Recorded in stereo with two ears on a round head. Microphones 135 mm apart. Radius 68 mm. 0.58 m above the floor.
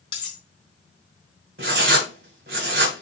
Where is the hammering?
I don't hear hammering.